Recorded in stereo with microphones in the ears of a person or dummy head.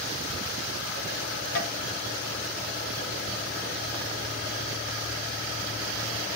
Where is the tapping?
55° left (ahead or behind), 1.4 m.